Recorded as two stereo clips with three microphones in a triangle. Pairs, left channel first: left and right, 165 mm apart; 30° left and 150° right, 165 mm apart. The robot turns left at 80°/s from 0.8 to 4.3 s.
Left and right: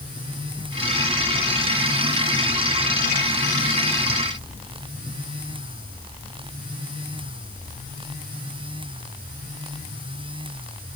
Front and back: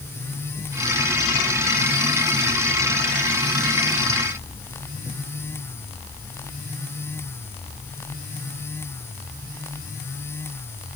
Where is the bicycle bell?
I don't hear a bicycle bell.